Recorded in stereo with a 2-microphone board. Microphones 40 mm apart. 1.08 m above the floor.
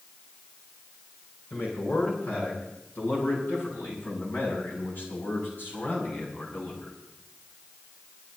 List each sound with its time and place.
1.5 s a man speaking: 65° left (ahead or behind), 9 m; by 7.0 s 55° left (ahead or behind), 6.5 m